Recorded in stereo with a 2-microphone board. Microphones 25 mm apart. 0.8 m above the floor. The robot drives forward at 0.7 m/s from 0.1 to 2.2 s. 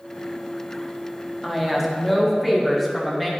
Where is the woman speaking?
5° right (ahead or behind), 0.9 m.